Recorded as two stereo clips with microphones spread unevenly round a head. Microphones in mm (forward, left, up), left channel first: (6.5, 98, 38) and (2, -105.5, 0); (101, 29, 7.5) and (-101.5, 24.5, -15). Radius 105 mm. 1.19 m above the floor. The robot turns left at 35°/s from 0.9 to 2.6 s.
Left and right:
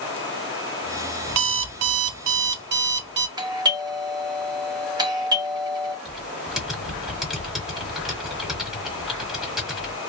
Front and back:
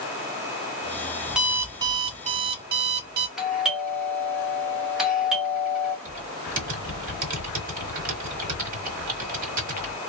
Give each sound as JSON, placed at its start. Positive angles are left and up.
{"t": 1.3, "sound": "an alarm clock", "azimuth_deg": -85, "distance_m": 0.6}
{"t": 3.4, "sound": "a doorbell", "azimuth_deg": -105, "distance_m": 1.2}
{"t": 6.0, "sound": "typing on a keyboard", "azimuth_deg": 165, "distance_m": 1.1}